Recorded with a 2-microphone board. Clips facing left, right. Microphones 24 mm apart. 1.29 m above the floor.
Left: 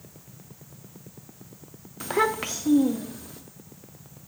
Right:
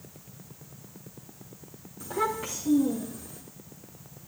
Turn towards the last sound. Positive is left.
turn(degrees=65)  # may be behind; listen again after turning